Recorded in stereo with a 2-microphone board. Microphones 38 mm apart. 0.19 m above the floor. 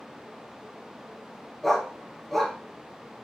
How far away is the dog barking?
About 1.3 m.